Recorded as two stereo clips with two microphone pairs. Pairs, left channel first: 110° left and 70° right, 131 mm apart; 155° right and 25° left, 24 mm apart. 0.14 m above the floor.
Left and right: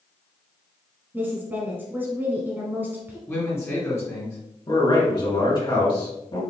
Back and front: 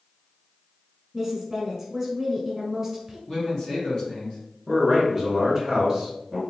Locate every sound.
1.1 s a woman speaking: 30° right, 1.1 m
3.3 s a man speaking: 165° left, 1.7 m
4.7 s a man speaking: 100° left, 2.0 m